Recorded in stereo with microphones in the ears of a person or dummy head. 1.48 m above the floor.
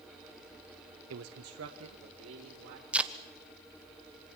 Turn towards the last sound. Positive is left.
turn(degrees=-5)  # may be behind; listen again after turning